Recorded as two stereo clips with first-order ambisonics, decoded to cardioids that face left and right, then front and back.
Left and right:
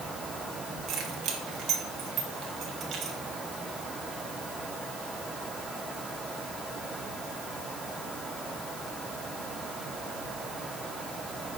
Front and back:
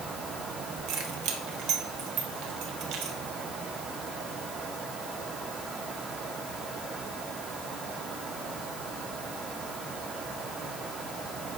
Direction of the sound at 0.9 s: 150° right.